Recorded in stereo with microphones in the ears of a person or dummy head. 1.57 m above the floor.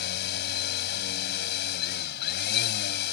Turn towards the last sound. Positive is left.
turn(degrees=60)  # may be behind; listen again after turning